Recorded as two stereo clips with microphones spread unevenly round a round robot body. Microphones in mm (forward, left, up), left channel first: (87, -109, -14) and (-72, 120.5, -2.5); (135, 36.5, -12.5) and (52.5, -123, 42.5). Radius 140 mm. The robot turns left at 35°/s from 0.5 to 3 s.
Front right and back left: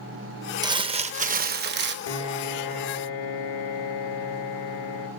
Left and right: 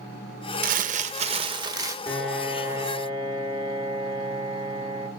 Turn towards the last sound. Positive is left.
turn(degrees=-50)